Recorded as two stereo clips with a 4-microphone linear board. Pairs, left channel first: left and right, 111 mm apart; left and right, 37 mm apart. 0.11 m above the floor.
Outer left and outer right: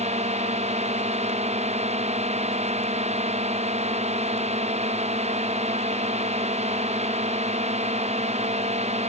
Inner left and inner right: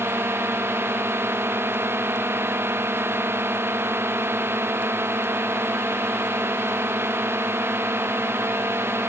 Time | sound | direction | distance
0.0 | a drone | 85° right | ?